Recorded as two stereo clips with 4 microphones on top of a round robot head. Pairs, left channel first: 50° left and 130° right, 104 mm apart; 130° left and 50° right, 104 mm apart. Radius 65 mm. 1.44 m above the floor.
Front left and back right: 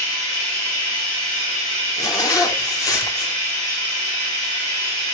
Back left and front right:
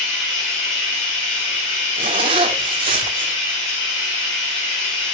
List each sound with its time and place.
0.0 s running water: 170° left, 6.5 m
2.0 s a zipper: 10° right, 1.2 m